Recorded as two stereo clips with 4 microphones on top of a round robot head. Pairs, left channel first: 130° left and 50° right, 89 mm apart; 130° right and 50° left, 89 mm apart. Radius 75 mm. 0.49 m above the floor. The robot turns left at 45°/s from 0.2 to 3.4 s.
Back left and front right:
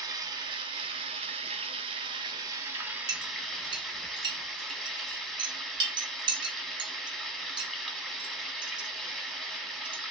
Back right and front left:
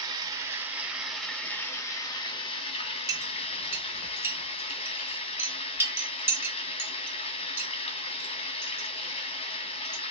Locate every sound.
0.0 s running water: 5° left, 1.1 m; by 10.1 s 140° right, 1.1 m
3.1 s a clink: straight ahead, 1.2 m; by 10.0 s 15° right, 1.2 m